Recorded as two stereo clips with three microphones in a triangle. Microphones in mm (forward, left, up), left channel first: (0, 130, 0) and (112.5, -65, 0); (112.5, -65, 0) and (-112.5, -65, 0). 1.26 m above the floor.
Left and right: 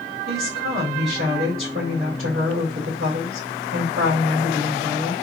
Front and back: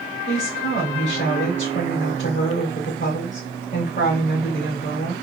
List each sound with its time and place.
0.3 s a woman speaking: 35° right, 2.5 m